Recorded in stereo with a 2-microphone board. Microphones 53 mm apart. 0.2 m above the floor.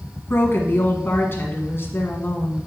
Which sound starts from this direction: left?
A woman speaking, at 0.3 s.